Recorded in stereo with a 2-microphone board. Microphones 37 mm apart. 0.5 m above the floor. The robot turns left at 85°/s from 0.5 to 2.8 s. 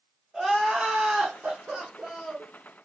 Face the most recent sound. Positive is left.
turn(degrees=145)